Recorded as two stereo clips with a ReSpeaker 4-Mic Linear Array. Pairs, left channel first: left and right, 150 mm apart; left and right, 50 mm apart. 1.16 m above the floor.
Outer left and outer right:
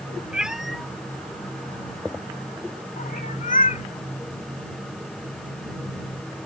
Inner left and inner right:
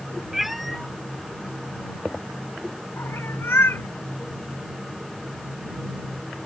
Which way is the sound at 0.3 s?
5° right (ahead or behind).